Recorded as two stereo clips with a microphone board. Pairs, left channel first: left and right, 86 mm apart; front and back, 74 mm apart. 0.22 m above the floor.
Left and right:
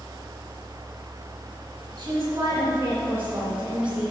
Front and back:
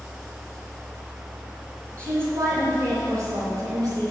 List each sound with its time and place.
2.0 s a woman speaking: 130° right, 2.5 m; by 4.1 s 170° right, 2.5 m